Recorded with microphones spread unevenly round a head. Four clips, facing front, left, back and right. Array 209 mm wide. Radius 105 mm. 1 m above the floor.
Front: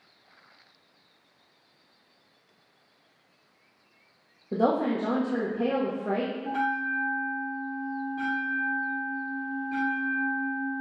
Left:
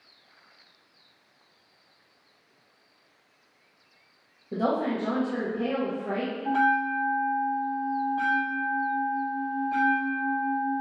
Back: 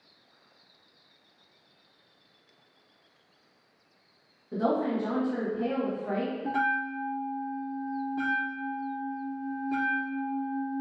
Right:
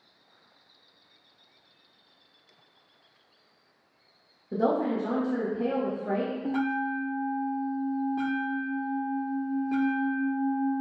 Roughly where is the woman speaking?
Ahead.